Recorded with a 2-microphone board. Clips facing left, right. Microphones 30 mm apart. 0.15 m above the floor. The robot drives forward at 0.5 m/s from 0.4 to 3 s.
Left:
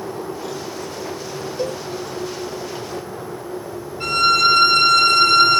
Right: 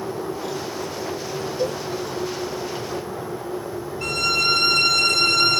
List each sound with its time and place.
1.6 s a cowbell: 55° left (ahead or behind), 2.5 m; by 1.8 s 50° left (ahead or behind), 2.5 m
4.0 s a violin: 55° left (ahead or behind), 2 m